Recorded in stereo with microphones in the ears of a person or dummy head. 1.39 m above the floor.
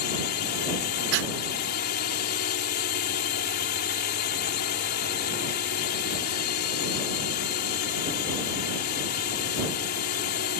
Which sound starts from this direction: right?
Breathing, at 1.1 s.